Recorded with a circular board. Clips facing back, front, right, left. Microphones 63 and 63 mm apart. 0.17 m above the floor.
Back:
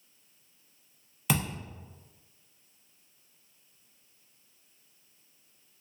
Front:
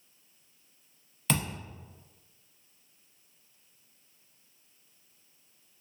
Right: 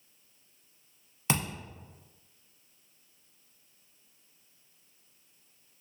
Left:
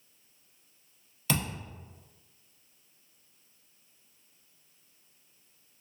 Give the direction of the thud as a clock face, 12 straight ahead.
4 o'clock.